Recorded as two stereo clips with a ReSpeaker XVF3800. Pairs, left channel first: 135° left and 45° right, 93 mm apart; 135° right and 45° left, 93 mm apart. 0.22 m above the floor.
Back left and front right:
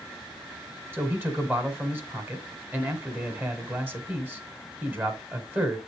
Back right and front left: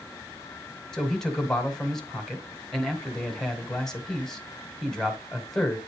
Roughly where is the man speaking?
Ahead right.